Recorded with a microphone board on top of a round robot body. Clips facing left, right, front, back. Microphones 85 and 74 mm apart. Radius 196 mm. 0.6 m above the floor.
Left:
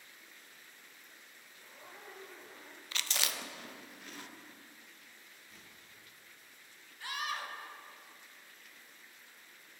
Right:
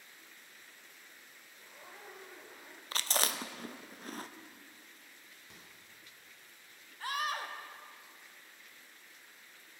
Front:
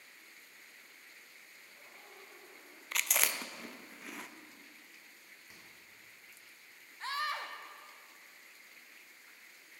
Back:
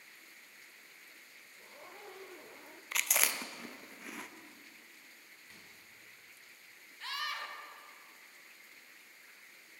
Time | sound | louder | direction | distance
1.6 | a zipper | even, back 8 dB | 175° right | 0.8 m
2.9 | chewing | right 4 dB, even | 90° right | 0.9 m
5.5 | a microwave | right 2 dB, back 1 dB | 75° right | 2.5 m
7.0 | a scream | right 3 dB, front 3 dB | 50° right | 1.8 m